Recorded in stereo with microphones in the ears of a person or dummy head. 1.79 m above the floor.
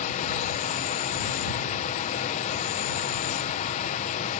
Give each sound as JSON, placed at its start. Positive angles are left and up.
{"t": 0.0, "sound": "an insect", "side_deg": 40}